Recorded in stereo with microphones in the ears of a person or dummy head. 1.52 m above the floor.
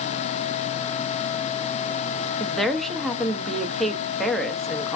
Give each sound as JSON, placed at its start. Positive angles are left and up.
{"t": 2.4, "sound": "a woman speaking", "side_deg": 0, "distance_m": 0.6}